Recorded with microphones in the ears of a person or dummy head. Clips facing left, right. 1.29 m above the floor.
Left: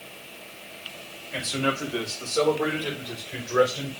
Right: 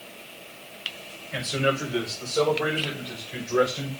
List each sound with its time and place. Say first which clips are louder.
1.3 s a man speaking: right 2 dB; 20° right (ahead or behind), 5.5 m; by 3.9 s 5° left (ahead or behind), 5.5 m